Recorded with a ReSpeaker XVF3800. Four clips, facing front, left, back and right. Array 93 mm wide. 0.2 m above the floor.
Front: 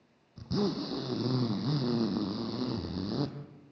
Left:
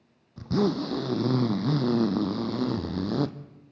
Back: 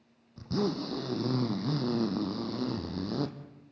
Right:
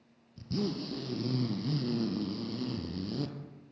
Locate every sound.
0.4 s a zipper: 95° left, 1.4 m